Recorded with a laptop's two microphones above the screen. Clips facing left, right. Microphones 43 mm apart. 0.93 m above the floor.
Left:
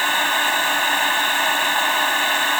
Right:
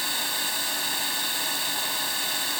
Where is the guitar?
No guitar in this recording.